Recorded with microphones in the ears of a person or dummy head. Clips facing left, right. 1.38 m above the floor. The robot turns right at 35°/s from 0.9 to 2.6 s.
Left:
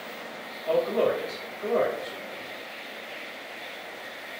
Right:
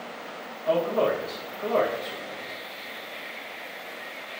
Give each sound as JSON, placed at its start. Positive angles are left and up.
{"t": 0.7, "sound": "a man speaking", "azimuth_deg": -120, "distance_m": 0.9}